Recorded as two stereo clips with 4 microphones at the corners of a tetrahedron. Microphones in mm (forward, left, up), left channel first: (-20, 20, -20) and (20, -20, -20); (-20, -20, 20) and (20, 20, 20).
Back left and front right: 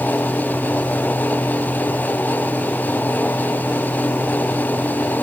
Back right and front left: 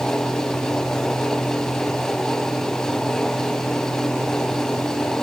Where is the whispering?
No whispering in this recording.